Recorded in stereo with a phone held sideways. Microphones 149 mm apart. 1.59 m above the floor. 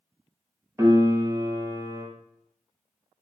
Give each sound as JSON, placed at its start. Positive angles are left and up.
{"t": 0.8, "sound": "a piano", "side_deg": -20, "distance_m": 0.5}